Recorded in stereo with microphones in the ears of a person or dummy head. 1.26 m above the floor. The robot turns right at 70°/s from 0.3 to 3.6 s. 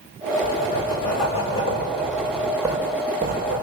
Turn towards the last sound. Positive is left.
turn(degrees=-100)